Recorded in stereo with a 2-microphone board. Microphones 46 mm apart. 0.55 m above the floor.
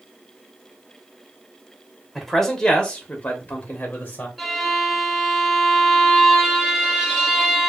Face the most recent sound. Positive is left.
turn(degrees=-5)  # may be behind; listen again after turning